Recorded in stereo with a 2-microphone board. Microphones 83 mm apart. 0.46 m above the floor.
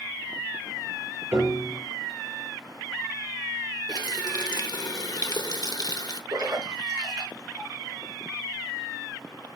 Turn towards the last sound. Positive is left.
turn(degrees=-50)  # may be behind; listen again after turning